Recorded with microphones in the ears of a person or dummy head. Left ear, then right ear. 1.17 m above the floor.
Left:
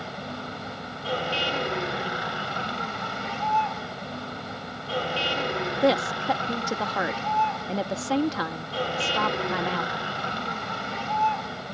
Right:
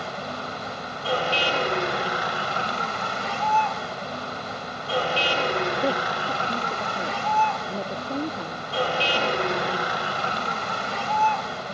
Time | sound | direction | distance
0.0 | a vehicle | 30° right (ahead or behind) | ?
5.8 | a woman speaking | 60° left (ahead or behind) | ?